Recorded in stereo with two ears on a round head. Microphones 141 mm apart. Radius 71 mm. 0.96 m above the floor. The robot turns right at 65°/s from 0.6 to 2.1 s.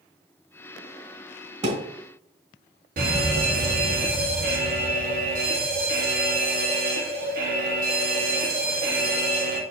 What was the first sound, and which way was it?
A thud, 45° right (ahead or behind).